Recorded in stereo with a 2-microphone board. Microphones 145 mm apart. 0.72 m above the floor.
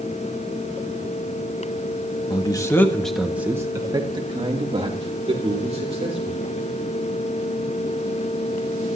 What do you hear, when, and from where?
2.3 s a man speaking: 30° left (ahead or behind), 1.2 m; by 6.4 s 45° right (ahead or behind), 3.5 m